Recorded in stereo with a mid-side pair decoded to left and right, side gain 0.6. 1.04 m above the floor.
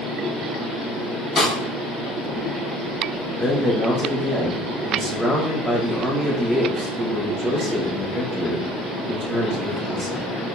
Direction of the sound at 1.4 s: 30° left.